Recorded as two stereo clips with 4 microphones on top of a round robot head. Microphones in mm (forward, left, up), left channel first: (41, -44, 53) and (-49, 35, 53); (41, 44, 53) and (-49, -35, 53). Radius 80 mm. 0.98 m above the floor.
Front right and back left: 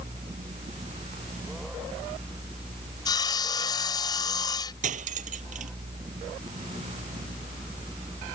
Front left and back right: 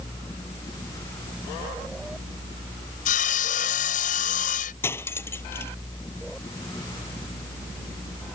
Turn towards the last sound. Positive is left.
turn(degrees=115)